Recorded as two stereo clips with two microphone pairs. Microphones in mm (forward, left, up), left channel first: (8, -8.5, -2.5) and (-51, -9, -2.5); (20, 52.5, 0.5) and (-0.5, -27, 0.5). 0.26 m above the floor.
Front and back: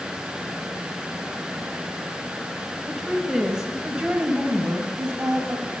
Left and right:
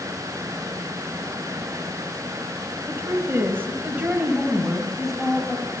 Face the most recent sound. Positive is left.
turn(degrees=160)